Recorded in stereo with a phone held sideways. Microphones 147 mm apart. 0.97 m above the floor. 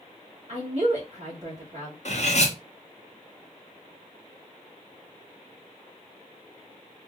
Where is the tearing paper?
I don't hear tearing paper.